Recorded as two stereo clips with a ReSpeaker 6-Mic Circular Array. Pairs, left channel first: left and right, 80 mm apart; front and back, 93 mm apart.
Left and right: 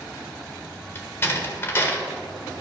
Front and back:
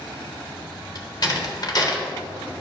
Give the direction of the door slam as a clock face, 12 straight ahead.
11 o'clock.